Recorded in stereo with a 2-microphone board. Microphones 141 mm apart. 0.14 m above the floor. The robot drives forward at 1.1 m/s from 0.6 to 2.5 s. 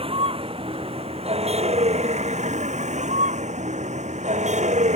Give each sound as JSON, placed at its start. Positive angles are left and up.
{"t": 0.0, "sound": "a vehicle", "side_deg": -40}